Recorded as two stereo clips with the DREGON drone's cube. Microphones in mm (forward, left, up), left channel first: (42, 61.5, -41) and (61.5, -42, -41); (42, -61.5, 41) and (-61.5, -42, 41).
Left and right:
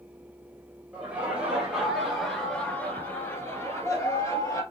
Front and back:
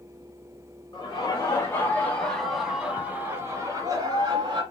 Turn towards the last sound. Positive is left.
turn(degrees=145)